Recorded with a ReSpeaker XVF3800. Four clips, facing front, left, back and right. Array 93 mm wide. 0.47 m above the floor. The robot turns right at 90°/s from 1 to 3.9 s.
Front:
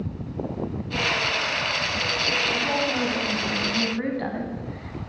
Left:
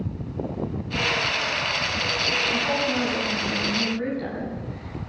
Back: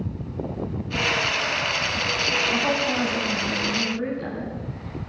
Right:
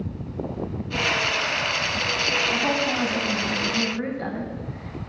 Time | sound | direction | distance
2.5 | a woman speaking | 150° right | 4 m